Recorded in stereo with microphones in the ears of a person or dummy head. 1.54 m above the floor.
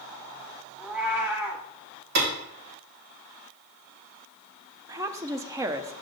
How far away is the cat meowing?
About 1.6 m.